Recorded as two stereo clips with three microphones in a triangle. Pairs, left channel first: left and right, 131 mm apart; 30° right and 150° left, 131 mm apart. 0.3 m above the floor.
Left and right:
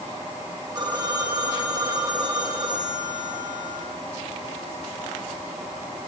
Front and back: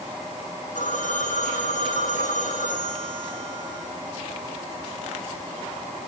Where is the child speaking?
I don't hear a child speaking.